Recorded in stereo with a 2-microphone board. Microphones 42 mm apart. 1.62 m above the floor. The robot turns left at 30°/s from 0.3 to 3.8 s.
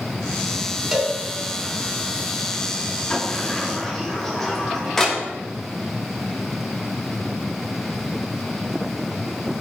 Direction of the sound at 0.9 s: Centre (ahead or behind).